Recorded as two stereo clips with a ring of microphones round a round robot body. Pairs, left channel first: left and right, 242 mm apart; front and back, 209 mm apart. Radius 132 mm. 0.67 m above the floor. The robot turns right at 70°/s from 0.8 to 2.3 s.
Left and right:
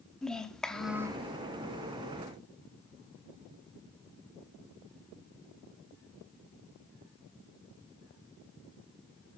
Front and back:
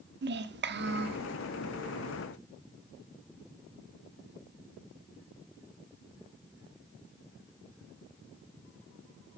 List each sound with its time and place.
0.2 s a child speaking: 175° left, 0.8 m; by 1.3 s 150° right, 0.8 m